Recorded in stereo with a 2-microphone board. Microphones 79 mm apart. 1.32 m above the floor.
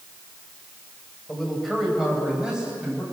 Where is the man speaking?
Centre (ahead or behind), 5.5 m; by 3.0 s 15° right (ahead or behind), 7 m.